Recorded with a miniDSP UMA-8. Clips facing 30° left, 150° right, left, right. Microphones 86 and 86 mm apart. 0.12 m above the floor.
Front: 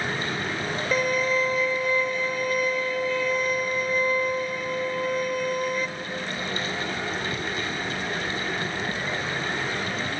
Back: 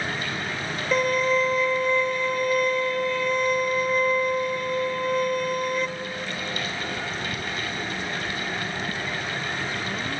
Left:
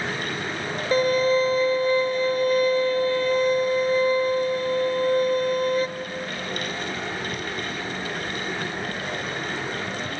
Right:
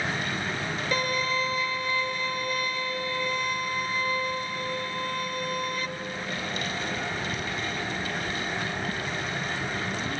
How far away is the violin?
About 0.9 m.